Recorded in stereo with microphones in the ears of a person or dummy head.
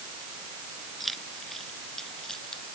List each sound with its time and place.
1.0 s keys jangling: centre (ahead or behind); by 2.6 s 5° left (ahead or behind)